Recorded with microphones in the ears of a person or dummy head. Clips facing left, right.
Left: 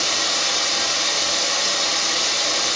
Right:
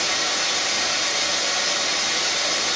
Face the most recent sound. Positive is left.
turn(degrees=65)  # may be behind; listen again after turning